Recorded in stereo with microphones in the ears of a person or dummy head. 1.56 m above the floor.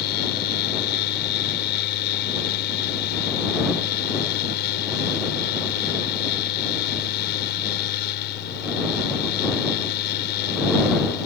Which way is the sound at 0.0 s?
70° left (ahead or behind).